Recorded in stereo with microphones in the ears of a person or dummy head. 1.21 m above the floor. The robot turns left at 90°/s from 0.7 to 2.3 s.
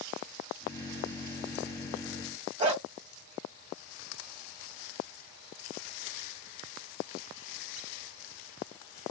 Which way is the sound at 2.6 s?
35° right (ahead or behind).